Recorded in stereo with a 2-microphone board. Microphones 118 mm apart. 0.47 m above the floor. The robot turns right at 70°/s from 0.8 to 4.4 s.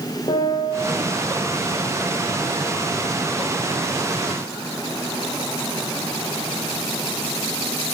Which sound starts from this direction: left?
A piano, at 0.3 s.